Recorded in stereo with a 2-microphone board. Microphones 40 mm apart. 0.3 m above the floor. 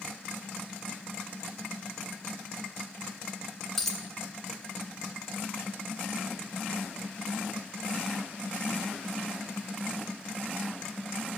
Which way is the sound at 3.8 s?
10° left (ahead or behind).